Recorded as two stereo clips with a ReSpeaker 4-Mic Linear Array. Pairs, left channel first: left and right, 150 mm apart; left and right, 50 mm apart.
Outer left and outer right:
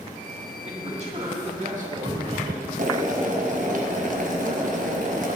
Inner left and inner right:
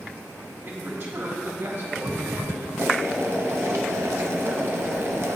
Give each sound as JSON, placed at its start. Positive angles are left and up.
{"t": 0.6, "sound": "a man speaking", "side_deg": -45, "distance_m": 2.5}
{"t": 2.8, "sound": "boiling", "side_deg": -60, "distance_m": 1.1}